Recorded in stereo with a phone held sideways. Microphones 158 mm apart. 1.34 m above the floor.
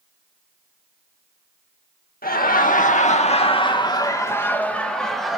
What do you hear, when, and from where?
2.2 s laughter: 70° left (ahead or behind), 1.9 m; by 5.4 s centre (ahead or behind), 2.5 m